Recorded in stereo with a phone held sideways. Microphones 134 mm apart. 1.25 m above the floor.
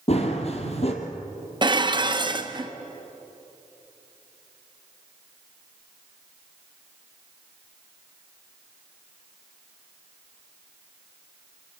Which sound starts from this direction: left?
Running footsteps, at 0.1 s.